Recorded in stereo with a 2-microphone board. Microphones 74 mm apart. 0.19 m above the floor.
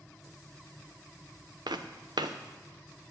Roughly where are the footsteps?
Right.